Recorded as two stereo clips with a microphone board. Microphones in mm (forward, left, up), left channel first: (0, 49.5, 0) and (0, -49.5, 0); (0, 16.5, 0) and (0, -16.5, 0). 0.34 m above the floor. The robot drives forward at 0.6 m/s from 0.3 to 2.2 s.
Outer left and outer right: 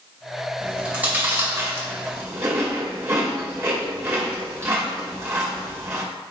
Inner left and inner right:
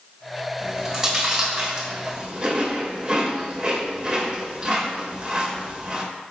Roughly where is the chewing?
Centre.